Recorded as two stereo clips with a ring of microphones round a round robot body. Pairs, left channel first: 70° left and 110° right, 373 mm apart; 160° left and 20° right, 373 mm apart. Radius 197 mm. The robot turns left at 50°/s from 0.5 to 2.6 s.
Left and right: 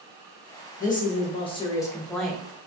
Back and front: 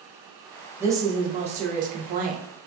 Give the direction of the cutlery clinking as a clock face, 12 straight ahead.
I don't hear cutlery clinking.